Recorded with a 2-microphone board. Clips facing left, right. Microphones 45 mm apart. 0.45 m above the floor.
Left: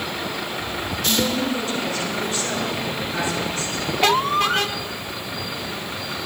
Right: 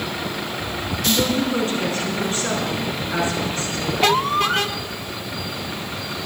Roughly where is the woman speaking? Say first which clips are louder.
Right 2 dB; right.